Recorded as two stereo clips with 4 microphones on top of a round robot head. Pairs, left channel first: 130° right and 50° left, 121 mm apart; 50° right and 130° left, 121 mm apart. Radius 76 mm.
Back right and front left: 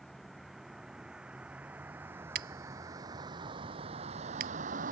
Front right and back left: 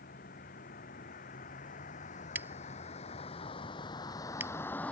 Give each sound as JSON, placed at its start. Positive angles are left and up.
{"t": 0.0, "sound": "a vehicle", "azimuth_deg": -40}
{"t": 2.4, "sound": "scissors", "azimuth_deg": 55}